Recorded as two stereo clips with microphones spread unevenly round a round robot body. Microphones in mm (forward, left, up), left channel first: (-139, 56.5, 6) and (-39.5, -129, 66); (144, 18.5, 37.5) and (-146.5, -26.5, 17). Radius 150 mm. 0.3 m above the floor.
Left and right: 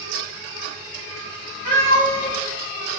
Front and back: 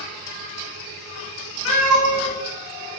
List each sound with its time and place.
1.6 s a cat meowing: 55° left, 0.9 m